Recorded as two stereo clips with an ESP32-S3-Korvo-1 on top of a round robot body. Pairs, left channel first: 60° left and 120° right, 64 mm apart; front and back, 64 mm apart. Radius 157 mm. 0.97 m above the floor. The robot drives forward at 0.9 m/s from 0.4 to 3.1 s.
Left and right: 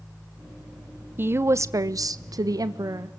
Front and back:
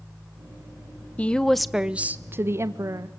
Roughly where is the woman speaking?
Ahead right.